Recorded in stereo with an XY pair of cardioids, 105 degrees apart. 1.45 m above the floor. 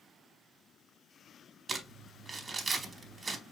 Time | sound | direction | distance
1.7 | crumpling | 35° right | 1.6 m